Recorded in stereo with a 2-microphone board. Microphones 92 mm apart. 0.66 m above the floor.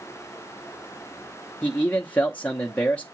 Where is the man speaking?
15° left (ahead or behind), 0.8 m.